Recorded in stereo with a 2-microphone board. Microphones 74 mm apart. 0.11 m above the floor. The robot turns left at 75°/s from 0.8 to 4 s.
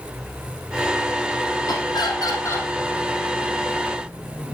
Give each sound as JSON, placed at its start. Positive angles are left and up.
{"t": 1.7, "sound": "laughter", "azimuth_deg": 105, "distance_m": 3.0}